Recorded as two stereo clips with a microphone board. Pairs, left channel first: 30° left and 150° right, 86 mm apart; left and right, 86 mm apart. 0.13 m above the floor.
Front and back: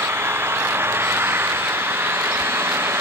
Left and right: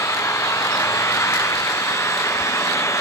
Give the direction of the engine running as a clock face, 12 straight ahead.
7 o'clock.